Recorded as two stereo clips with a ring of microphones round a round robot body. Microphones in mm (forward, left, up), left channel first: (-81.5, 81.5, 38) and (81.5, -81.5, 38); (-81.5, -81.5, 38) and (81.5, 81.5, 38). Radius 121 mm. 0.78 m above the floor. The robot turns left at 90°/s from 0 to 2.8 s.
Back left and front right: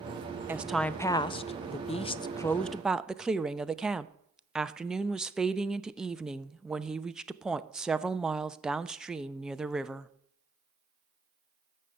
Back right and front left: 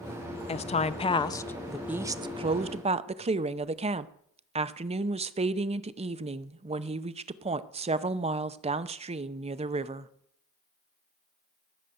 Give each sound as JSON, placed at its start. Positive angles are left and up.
{"t": 0.5, "sound": "a woman speaking", "azimuth_deg": -115, "distance_m": 0.7}